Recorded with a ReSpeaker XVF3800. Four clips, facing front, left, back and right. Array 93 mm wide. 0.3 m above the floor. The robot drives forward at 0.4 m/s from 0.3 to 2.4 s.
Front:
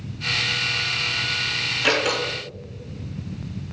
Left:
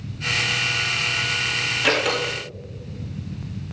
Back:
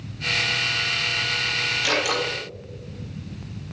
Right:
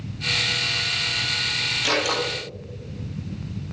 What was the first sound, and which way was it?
A door slam, 55° left.